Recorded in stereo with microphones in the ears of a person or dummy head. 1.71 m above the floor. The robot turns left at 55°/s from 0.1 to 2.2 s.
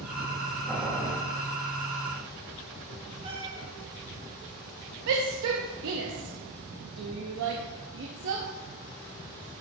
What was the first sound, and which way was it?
Boiling, centre (ahead or behind).